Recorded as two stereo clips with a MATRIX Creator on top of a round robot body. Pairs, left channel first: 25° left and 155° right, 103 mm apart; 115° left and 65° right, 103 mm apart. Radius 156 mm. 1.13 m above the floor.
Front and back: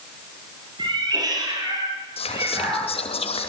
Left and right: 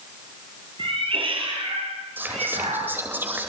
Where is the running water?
I don't hear running water.